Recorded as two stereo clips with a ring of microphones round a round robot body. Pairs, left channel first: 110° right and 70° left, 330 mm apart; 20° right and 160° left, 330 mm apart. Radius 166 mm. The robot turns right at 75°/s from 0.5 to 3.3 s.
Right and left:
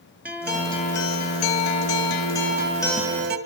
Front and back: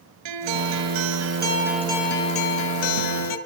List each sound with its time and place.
0.2 s a guitar: 155° left, 3.5 m; by 3.4 s 5° left, 3.5 m